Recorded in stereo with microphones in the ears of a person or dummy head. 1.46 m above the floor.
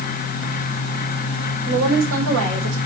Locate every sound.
1.7 s a woman speaking: 85° right, 5 m; by 2.8 s 90° right, 4.5 m